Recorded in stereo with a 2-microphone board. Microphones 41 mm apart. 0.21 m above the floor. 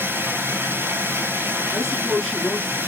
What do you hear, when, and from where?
0.0 s running water: 70° right (ahead or behind), 1.6 m
1.7 s a woman speaking: 5° right (ahead or behind), 2.5 m